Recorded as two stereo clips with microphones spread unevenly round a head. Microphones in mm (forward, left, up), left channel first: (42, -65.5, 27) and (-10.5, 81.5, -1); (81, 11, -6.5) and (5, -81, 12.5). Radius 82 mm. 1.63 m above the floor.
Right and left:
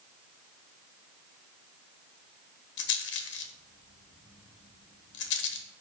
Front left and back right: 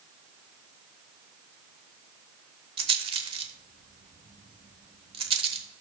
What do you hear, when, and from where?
2.8 s a rattle: 90° right, 1.1 m